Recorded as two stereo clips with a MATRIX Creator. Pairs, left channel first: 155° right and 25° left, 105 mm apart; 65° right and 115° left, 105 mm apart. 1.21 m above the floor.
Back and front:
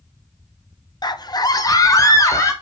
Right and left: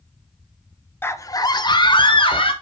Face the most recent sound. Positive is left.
turn(degrees=-100)